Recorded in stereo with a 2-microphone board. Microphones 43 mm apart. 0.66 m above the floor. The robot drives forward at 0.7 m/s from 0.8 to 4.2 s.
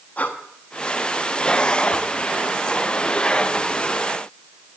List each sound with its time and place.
0.2 s breathing: 30° left (ahead or behind), 0.9 m